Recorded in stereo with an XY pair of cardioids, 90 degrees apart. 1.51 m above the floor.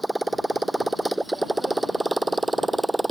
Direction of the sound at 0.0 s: 10° right.